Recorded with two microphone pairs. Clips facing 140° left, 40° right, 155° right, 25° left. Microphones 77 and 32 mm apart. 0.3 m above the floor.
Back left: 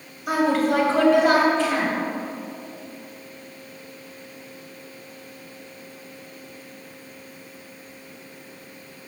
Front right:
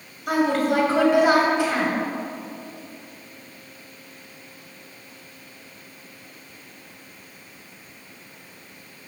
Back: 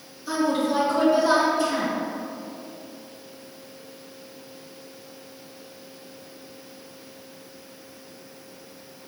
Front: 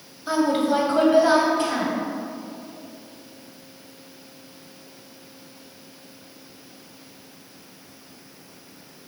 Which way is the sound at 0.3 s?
60° left.